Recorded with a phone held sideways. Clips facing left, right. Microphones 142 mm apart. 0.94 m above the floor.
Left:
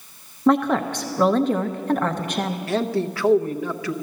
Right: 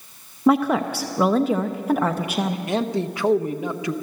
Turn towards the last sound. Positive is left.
turn(degrees=-20)  # may be behind; listen again after turning